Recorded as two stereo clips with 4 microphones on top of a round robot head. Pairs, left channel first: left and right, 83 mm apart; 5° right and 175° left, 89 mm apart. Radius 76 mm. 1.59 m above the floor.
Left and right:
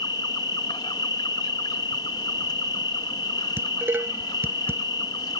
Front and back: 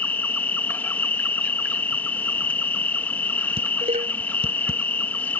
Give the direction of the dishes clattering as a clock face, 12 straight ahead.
5 o'clock.